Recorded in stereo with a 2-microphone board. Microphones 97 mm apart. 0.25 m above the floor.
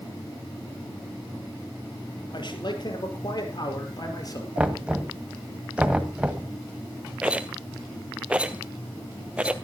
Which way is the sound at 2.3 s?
55° left (ahead or behind).